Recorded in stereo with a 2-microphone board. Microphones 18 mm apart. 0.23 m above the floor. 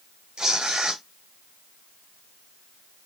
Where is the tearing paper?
50° right (ahead or behind), 2 m.